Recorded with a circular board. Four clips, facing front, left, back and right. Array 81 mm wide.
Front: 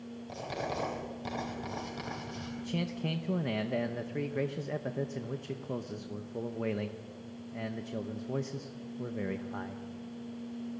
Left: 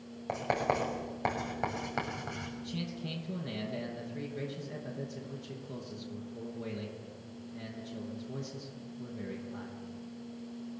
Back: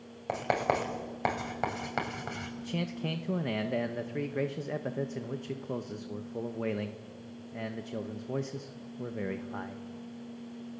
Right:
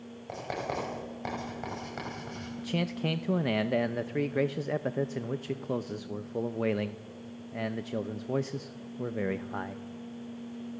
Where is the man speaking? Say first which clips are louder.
Right 12 dB, even; 95° right, 0.8 m.